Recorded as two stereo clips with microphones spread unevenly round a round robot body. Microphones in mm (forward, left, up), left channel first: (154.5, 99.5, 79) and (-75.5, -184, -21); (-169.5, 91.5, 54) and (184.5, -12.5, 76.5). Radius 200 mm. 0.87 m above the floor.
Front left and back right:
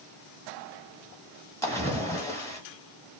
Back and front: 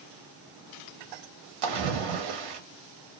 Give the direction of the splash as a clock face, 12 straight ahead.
1 o'clock.